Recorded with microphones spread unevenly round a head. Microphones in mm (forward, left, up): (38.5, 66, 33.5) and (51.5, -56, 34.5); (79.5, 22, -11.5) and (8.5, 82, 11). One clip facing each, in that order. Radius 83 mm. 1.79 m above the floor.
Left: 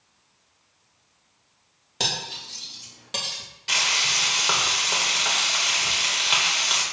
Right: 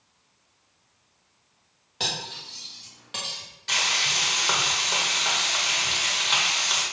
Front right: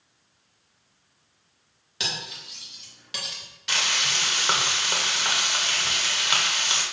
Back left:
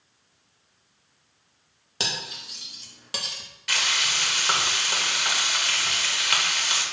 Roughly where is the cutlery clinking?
Behind left.